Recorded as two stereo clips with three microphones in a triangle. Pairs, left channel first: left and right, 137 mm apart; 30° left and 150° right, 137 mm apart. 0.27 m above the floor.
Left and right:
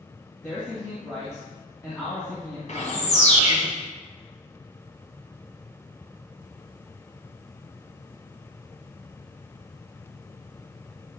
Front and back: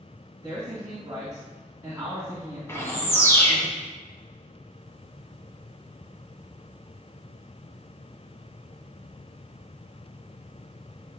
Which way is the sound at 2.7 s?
100° left.